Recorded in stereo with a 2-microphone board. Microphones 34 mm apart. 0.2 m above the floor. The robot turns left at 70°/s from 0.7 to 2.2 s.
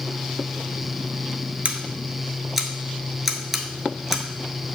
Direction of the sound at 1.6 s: 45° right (ahead or behind).